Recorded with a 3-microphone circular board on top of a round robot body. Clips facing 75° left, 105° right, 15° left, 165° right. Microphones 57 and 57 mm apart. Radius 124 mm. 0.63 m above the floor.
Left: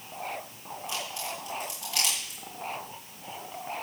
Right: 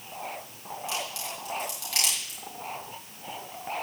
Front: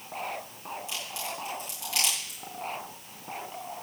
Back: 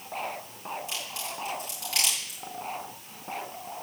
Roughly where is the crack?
Behind right.